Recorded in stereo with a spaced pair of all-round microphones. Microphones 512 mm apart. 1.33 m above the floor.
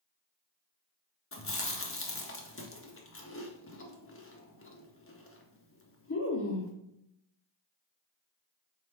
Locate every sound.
1.3 s chewing: 25° left (ahead or behind), 0.6 m